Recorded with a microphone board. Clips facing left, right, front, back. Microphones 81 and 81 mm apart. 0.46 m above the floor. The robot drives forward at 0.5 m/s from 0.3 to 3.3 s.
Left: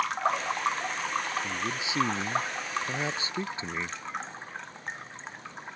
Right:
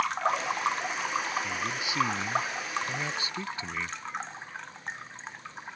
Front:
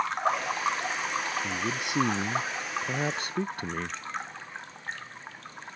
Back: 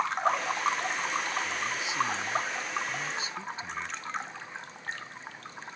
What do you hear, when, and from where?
1.4 s a man speaking: 25° left; by 4.0 s 30° left